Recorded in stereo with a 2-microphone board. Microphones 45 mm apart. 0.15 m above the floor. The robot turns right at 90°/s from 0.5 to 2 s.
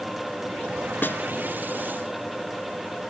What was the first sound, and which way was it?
A snare drum, 50° left (ahead or behind).